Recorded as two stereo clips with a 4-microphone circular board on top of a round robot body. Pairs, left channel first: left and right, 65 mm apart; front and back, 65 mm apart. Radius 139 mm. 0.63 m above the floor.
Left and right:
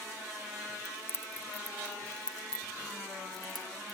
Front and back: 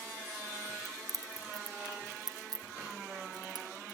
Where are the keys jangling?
135° left, 1.4 m; by 4.0 s straight behind, 4 m.